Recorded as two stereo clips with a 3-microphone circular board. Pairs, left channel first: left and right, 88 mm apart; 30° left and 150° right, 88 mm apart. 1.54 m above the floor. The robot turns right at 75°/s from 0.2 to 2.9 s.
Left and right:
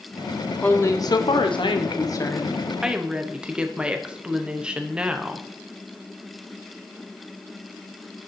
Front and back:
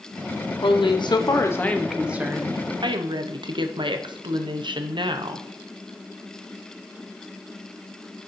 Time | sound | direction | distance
0.6 | a woman speaking | 20° left | 0.8 m